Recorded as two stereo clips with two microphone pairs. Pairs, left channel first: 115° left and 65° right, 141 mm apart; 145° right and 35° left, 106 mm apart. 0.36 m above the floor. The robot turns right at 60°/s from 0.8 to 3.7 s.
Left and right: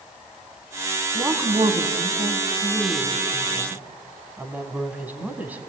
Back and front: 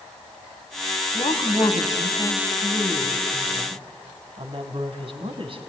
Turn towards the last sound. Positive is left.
turn(degrees=10)